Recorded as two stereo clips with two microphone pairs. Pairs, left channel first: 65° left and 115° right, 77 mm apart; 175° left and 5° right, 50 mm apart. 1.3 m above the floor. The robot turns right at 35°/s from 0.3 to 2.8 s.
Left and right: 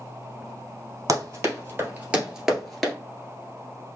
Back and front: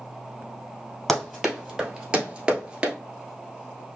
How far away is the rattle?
I don't hear a rattle.